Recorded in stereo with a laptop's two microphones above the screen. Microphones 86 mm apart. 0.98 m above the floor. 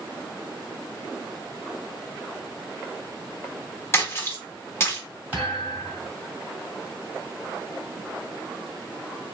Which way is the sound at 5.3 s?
20° right (ahead or behind).